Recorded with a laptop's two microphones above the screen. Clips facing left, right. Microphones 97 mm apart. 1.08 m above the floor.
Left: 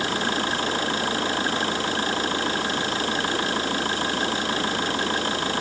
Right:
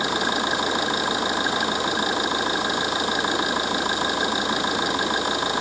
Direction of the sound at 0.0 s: 15° right (ahead or behind).